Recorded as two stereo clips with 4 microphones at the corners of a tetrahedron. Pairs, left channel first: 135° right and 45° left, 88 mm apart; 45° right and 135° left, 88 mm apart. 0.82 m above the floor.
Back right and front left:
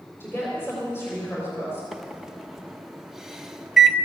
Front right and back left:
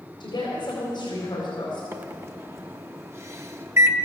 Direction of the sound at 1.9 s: 125° left.